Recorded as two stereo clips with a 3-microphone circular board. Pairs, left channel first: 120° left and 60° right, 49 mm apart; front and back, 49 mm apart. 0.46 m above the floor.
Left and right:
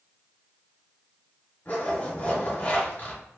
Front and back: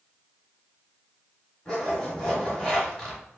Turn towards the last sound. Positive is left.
turn(degrees=75)